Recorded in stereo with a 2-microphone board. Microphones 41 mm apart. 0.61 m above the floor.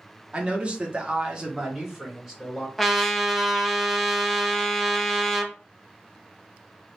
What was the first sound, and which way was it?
A man speaking, 30° right (ahead or behind).